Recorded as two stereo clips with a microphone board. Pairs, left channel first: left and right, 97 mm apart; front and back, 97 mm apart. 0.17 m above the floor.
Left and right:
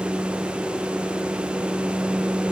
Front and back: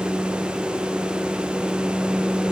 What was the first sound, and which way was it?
Only background noise.